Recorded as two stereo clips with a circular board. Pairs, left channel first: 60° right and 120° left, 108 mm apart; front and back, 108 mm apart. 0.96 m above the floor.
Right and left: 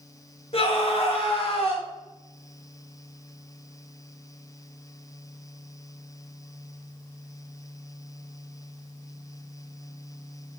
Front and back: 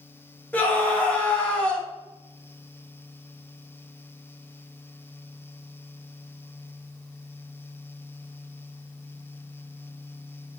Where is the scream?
75° right, 1.4 m.